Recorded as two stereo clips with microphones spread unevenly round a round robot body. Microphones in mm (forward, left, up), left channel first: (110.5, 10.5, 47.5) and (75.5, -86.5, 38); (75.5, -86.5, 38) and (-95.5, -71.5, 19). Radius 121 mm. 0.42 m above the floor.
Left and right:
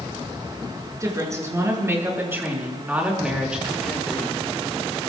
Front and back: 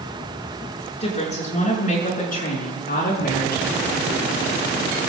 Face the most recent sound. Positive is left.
turn(degrees=-20)